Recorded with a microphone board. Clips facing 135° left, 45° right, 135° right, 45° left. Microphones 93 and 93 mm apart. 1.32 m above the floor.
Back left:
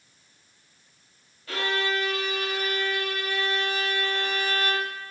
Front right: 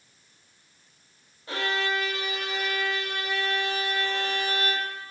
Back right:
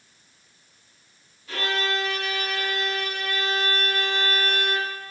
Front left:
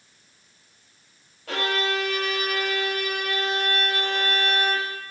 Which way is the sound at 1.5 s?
25° left.